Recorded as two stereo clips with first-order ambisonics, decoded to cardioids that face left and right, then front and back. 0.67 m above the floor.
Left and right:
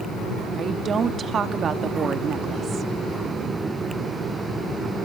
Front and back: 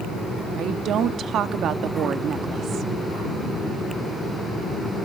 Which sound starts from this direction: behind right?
A woman speaking, at 0.5 s.